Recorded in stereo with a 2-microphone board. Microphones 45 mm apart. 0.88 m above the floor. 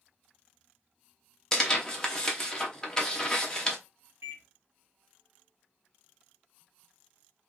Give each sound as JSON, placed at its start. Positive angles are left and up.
{"t": 1.5, "sound": "tearing paper", "side_deg": 15, "distance_m": 1.0}
{"t": 4.2, "sound": "a microwave", "side_deg": -70, "distance_m": 1.0}